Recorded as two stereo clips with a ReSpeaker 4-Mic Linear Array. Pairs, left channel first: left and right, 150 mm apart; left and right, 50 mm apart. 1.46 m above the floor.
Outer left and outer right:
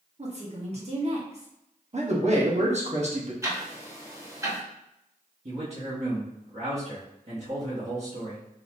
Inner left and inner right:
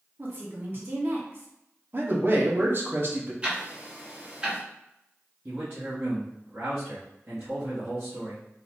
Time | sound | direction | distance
0.2 | a woman speaking | 45° right (ahead or behind) | 1.1 m
1.9 | a man speaking | 50° right (ahead or behind) | 1.0 m
3.4 | ticking | 20° right (ahead or behind) | 1.1 m
5.5 | a man speaking | 50° right (ahead or behind) | 1.1 m